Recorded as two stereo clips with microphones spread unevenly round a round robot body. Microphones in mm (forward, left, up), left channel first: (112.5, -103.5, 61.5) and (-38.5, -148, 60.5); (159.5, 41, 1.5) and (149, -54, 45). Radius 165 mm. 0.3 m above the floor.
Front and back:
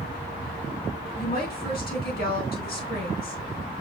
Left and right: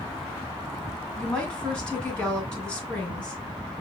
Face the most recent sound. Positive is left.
turn(degrees=15)